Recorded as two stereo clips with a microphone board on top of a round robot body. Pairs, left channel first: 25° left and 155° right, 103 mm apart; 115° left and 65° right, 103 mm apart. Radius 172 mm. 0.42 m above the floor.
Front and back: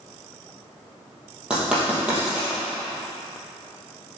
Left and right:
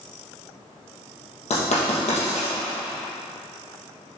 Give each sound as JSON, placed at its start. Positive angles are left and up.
{"t": 1.5, "sound": "writing", "azimuth_deg": 120, "distance_m": 3.0}